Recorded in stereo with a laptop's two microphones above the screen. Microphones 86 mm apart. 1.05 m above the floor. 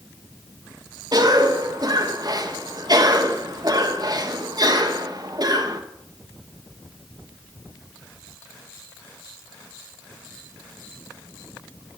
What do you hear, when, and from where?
1.1 s a cough: 50° right (ahead or behind), 1.4 m